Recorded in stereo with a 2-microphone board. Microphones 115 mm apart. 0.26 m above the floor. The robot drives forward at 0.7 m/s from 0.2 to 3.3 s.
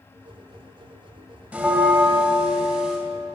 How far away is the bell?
About 0.8 m.